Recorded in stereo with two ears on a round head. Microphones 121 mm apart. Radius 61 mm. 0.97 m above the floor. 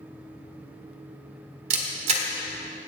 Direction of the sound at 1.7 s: 50° right (ahead or behind).